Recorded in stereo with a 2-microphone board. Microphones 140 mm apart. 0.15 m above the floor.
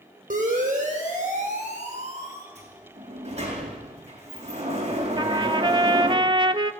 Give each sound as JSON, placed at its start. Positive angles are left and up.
{"t": 0.3, "sound": "a siren", "side_deg": -70, "distance_m": 6.0}
{"t": 2.5, "sound": "a sliding door", "side_deg": -50, "distance_m": 4.5}
{"t": 5.2, "sound": "a trumpet", "side_deg": -35, "distance_m": 0.8}